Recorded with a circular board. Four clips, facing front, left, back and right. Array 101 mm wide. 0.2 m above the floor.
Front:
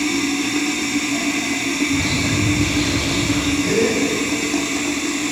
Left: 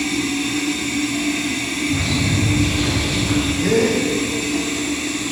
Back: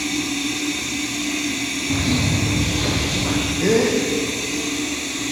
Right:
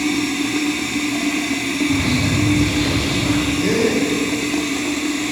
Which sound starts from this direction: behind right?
A bird, at 1.9 s.